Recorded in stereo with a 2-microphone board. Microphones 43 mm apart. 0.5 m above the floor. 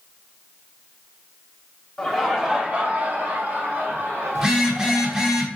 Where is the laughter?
10° left (ahead or behind), 0.9 m; by 5.3 s 70° right (ahead or behind), 2.5 m.